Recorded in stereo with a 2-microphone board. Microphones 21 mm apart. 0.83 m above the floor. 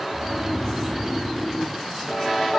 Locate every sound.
0.1 s snoring: 20° left (ahead or behind), 1.7 m